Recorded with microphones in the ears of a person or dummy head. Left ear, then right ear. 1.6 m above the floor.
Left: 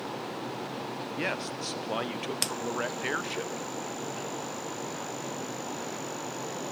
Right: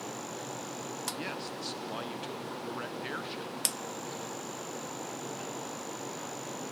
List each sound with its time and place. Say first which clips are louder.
1.2 s a man speaking: left 5 dB; 20° left (ahead or behind), 0.7 m